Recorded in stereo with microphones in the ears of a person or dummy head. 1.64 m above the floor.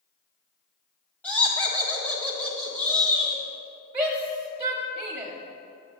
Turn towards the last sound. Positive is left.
turn(degrees=-20)  # may be behind; listen again after turning